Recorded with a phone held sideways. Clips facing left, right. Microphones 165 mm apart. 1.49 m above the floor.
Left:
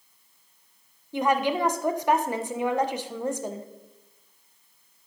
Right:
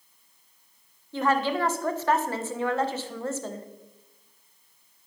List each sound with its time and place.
1.1 s a woman speaking: 15° left (ahead or behind), 1.2 m